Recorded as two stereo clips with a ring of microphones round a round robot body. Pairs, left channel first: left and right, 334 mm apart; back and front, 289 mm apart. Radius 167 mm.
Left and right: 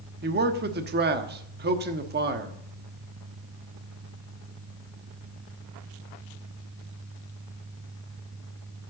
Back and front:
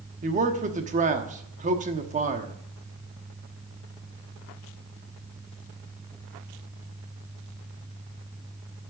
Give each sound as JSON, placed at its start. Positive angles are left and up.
{"t": 0.2, "sound": "a man speaking", "azimuth_deg": -50, "distance_m": 1.2}